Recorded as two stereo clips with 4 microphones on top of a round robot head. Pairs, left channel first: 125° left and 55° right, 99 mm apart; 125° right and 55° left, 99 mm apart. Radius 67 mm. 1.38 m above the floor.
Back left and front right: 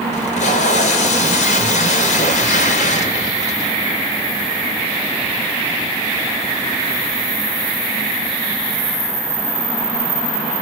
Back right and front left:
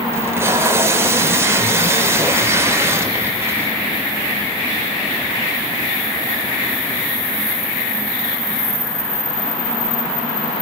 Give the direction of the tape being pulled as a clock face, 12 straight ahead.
8 o'clock.